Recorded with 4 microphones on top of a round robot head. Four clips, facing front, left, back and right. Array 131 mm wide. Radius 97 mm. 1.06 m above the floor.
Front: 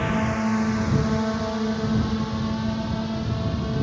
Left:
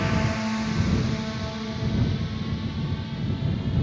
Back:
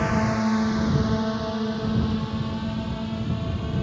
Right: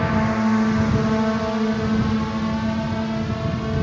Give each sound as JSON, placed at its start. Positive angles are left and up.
{"t": 0.0, "sound": "a drone", "azimuth_deg": -110}